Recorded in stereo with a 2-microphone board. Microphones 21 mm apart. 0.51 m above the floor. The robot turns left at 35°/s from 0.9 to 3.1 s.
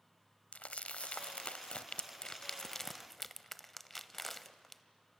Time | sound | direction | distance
0.5 | crumpling | 80° left | 0.7 m